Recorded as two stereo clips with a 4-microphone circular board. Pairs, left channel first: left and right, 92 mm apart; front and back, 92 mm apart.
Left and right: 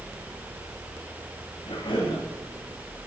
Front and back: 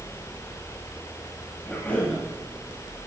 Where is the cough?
75° left, 9.5 m.